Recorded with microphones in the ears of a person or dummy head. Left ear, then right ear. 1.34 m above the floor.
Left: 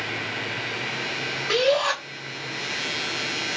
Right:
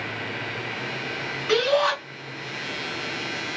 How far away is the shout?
About 2.5 m.